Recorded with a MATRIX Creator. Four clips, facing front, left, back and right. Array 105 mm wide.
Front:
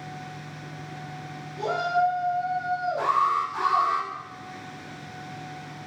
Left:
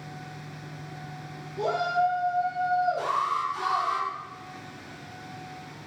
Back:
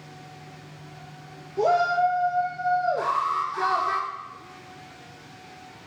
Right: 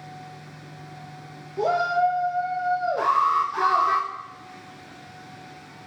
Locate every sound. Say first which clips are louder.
1.6 s a shout: right 4 dB, back 3 dB; 155° right, 2.5 m; by 4.0 s 120° right, 1.9 m
3.0 s an alarm: right 6 dB, front 2 dB; 95° right, 6 m